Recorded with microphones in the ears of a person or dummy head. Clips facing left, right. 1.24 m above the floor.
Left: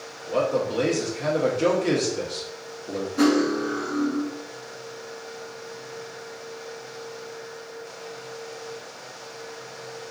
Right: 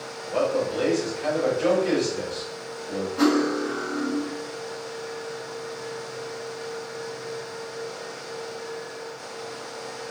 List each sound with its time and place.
0.3 s a man speaking: 45° left (ahead or behind), 0.9 m
3.2 s cutlery clinking: 20° left (ahead or behind), 0.8 m